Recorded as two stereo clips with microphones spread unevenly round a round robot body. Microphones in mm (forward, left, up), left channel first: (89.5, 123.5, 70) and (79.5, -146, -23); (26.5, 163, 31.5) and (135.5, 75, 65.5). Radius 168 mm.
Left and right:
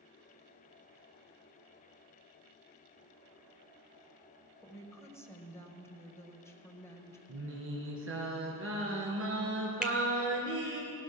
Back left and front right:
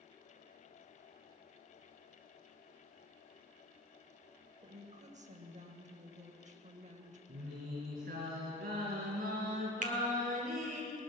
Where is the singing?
55° right, 3.5 m.